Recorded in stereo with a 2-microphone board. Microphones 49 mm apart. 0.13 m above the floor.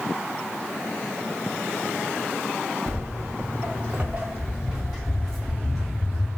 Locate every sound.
2.9 s footsteps: 65° right (ahead or behind), 0.7 m; by 6.3 s centre (ahead or behind), 2.0 m